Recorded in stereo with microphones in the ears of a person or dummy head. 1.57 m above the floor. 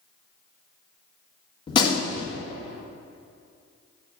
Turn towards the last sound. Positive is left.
turn(degrees=30)  # may be behind; listen again after turning